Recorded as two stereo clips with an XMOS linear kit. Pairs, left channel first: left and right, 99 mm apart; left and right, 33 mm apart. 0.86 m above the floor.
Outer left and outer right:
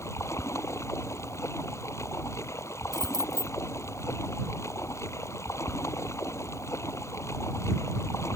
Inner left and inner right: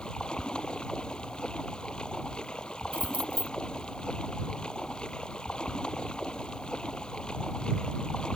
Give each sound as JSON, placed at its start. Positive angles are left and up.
{"t": 0.0, "sound": "running water", "side_deg": 30}
{"t": 2.9, "sound": "keys jangling", "side_deg": -45}